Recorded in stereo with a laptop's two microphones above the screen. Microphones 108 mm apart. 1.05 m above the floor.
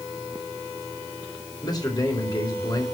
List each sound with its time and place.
1.6 s a man speaking: 40° left (ahead or behind), 3.5 m